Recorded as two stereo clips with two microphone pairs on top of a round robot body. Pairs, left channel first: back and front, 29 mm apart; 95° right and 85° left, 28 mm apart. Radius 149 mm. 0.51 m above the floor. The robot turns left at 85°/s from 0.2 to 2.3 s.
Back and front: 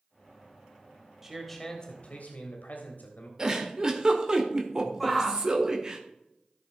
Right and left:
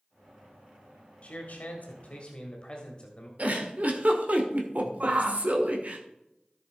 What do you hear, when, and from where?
1.2 s a man speaking: 60° right, 1.8 m; by 3.3 s 150° right, 1.8 m
3.4 s a giggle: 60° left, 1.8 m
5.0 s a shout: 85° left, 1.2 m